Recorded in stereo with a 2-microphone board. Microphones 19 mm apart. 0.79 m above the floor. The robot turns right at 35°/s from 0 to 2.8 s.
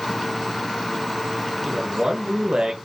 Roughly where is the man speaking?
Behind right.